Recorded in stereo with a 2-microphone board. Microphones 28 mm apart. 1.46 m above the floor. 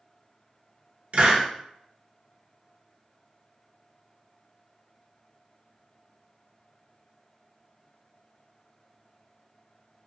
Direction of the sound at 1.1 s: 55° right (ahead or behind).